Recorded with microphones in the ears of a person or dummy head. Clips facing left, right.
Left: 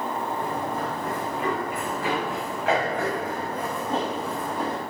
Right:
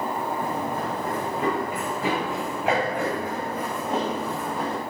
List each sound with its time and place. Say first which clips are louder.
0.4 s running footsteps: right 1 dB; 30° right (ahead or behind), 5 m; by 4.8 s centre (ahead or behind), 3.5 m